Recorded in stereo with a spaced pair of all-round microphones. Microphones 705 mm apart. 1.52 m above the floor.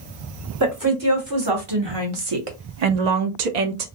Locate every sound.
0.6 s a woman speaking: 25° right (ahead or behind), 1.7 m; by 3.9 s 60° right (ahead or behind), 0.7 m